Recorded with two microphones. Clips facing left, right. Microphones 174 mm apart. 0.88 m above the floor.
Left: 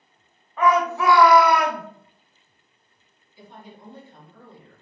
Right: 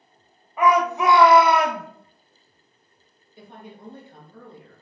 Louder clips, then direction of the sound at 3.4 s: Right 2 dB; 50° right (ahead or behind).